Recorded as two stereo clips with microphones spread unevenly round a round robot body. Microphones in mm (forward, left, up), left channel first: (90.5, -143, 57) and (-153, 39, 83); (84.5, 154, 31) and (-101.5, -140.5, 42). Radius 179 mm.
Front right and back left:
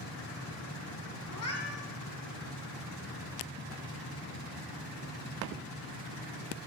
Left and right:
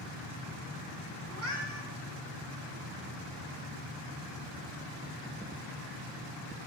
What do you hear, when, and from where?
1.3 s a cat meowing: 75° right, 2.5 m